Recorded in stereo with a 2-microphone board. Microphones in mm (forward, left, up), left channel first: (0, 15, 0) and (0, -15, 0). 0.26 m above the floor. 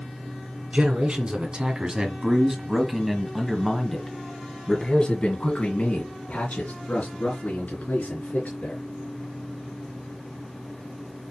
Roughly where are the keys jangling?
I don't hear keys jangling.